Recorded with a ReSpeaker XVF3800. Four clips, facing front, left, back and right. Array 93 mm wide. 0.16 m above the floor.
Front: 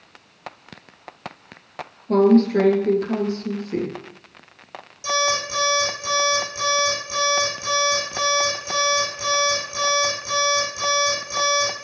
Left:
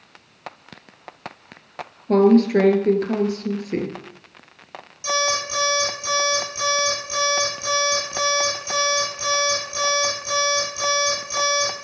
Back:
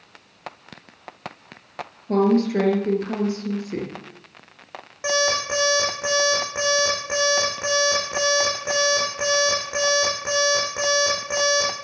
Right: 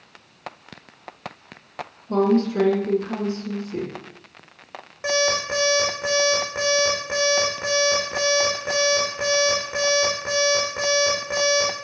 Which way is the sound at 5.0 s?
140° right.